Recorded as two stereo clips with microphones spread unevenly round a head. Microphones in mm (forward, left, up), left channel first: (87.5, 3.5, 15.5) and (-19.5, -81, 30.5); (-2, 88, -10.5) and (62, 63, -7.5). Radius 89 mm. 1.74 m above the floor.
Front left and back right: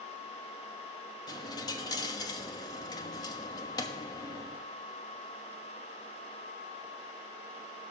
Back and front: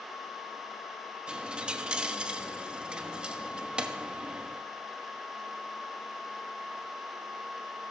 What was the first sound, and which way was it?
A dropped coin, 20° left.